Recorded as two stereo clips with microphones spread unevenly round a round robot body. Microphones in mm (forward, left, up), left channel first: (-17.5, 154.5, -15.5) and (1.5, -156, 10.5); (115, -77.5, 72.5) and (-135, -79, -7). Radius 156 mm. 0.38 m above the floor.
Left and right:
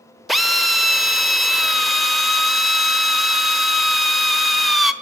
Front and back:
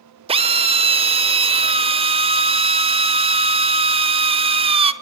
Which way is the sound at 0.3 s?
175° left.